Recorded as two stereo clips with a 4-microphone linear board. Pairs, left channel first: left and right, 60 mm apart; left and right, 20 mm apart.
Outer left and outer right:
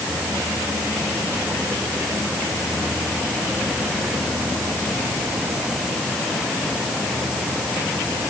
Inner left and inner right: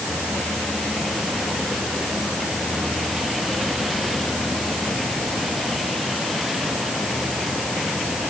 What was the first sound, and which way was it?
Only background noise.